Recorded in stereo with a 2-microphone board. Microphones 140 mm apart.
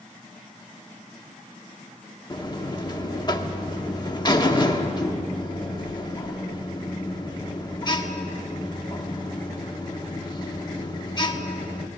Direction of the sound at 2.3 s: 30° left (ahead or behind).